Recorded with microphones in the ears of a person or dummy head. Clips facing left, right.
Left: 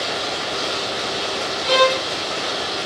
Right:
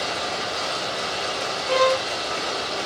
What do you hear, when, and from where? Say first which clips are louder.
0.0 s running water: left 2 dB; 45° right (ahead or behind), 1.6 m
1.6 s a violin: left 2 dB; 70° left (ahead or behind), 0.7 m